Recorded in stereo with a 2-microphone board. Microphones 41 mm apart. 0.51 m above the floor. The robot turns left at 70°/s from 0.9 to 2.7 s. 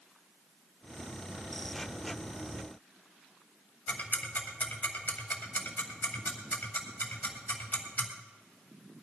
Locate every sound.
3.9 s ticking: 45° left (ahead or behind), 3 m